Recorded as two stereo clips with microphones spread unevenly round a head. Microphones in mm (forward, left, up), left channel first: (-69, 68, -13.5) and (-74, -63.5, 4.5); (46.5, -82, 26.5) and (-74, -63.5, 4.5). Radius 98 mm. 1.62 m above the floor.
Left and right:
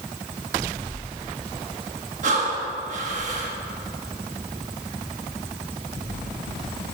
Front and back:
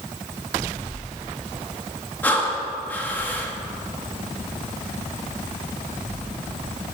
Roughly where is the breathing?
Right.